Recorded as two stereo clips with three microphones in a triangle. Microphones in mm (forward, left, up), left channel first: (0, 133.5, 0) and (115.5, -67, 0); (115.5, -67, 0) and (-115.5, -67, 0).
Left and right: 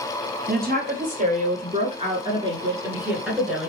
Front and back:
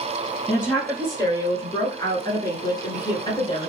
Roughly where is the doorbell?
I don't hear a doorbell.